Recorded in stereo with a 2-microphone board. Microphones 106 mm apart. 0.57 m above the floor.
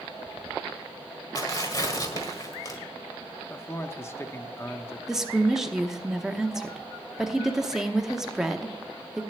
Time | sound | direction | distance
1.4 | tearing paper | 35° left (ahead or behind) | 1.7 m
3.5 | a man speaking | 25° left (ahead or behind) | 0.6 m
5.1 | a woman speaking | 5° right (ahead or behind) | 0.8 m